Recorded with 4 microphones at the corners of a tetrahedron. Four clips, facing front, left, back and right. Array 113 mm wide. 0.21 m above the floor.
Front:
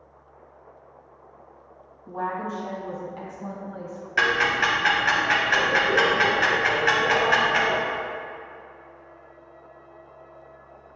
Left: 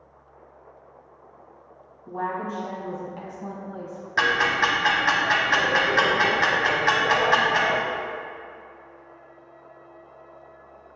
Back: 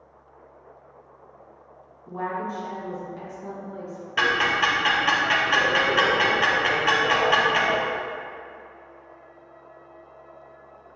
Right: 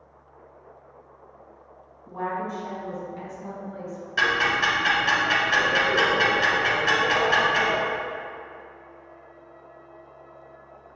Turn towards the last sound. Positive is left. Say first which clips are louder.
# left 1 dB, even
turn(degrees=100)